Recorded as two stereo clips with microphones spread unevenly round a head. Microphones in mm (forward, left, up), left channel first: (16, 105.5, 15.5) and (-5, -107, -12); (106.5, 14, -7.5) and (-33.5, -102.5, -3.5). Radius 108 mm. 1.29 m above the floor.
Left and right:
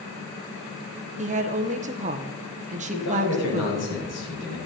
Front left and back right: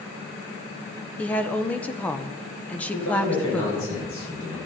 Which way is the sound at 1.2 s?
40° right.